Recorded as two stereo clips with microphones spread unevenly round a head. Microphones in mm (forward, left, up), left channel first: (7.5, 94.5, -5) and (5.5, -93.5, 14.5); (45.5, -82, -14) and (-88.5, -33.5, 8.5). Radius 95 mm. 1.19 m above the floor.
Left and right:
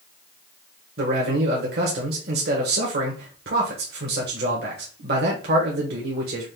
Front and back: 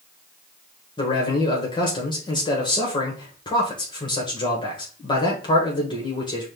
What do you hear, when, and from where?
1.0 s a man speaking: 65° right, 1.2 m